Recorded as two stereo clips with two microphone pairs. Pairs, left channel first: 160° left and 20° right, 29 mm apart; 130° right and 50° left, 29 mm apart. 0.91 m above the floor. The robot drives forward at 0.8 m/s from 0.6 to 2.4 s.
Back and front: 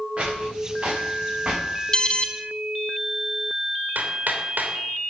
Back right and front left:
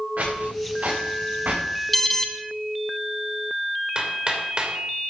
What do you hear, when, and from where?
0.2 s footsteps: 30° left, 8 m; by 1.6 s 35° left, 5 m
1.9 s an alarm: 160° left, 1.2 m; by 2.3 s 170° left, 1.3 m
4.0 s hammering: 5° right, 3 m